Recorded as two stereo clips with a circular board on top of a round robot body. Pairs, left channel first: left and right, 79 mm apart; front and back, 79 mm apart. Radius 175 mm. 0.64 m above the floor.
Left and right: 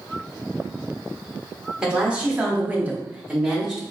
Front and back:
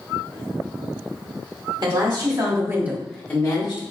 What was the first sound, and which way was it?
A woman speaking, 165° right.